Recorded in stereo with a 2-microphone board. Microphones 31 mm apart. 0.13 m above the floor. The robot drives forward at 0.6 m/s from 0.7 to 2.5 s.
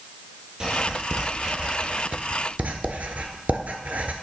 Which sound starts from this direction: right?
Writing, at 0.6 s.